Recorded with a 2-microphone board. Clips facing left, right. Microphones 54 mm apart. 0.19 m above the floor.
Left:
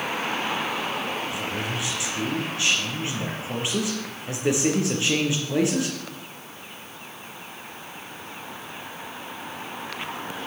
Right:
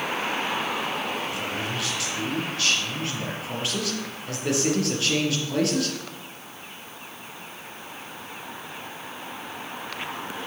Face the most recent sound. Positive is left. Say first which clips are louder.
# even
turn(degrees=15)  # may be behind; listen again after turning